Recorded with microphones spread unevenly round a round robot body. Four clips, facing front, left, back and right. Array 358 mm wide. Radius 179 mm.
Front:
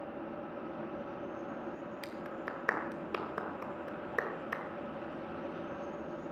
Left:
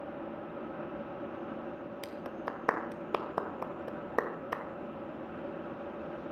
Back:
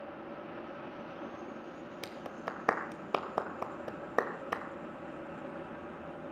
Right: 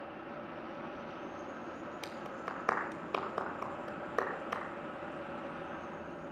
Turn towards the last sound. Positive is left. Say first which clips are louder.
# left 4 dB, back 3 dB
turn(degrees=150)